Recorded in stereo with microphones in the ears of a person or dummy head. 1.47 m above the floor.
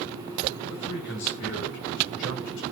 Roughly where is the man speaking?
Left.